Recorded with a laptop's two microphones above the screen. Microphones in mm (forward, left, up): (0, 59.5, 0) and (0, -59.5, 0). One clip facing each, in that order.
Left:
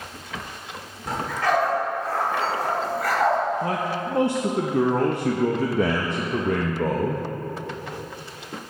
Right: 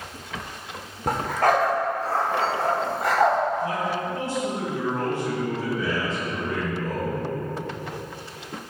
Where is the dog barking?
55° right (ahead or behind), 1.3 m; by 3.4 s 25° right (ahead or behind), 2.5 m.